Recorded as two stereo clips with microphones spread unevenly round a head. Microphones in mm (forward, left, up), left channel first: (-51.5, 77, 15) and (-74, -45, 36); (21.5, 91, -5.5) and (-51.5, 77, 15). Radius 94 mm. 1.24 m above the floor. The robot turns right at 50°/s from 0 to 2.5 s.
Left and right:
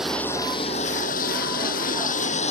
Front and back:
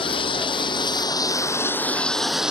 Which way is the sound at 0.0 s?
15° right.